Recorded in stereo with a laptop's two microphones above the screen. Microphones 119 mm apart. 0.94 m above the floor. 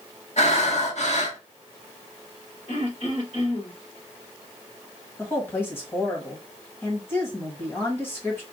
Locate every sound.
0.4 s breathing: 65° left (ahead or behind), 1.4 m
2.7 s throat clearing: 60° left (ahead or behind), 2.5 m
5.2 s a woman speaking: 20° left (ahead or behind), 1.6 m